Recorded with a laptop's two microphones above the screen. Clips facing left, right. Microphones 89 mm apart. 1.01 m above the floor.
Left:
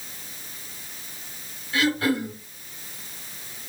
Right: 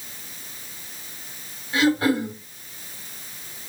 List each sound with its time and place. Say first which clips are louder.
1.7 s throat clearing: right 3 dB; 30° right (ahead or behind), 2 m